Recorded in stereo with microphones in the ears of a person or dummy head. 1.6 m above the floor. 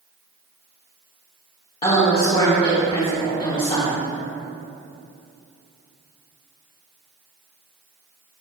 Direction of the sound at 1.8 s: 25° left (ahead or behind).